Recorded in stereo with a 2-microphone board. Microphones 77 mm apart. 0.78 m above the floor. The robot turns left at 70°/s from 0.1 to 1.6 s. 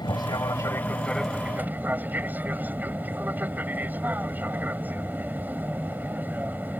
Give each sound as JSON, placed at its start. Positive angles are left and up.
{"t": 0.0, "sound": "an aircraft", "azimuth_deg": 80}